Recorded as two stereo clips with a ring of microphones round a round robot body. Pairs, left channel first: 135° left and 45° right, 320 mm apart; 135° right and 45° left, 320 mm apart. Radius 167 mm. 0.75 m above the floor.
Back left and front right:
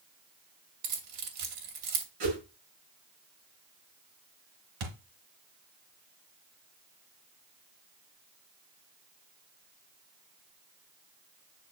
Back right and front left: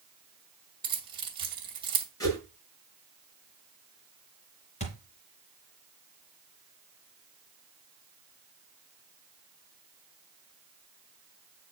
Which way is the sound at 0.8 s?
30° right.